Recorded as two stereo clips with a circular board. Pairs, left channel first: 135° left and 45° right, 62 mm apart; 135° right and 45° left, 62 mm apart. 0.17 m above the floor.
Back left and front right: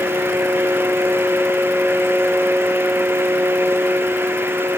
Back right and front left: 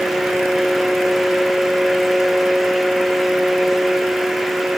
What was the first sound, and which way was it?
Only background noise.